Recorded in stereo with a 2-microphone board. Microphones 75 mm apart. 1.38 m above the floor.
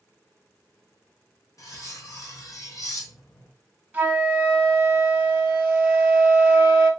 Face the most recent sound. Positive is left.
turn(degrees=-20)  # may be behind; listen again after turning